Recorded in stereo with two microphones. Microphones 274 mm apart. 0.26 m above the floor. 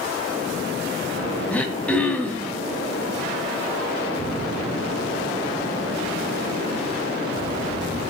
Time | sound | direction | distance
1.5 | throat clearing | 5° left (ahead or behind) | 1.9 m